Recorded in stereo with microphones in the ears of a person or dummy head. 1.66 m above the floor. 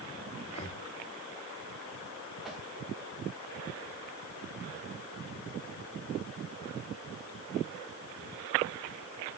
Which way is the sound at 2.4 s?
Centre (ahead or behind).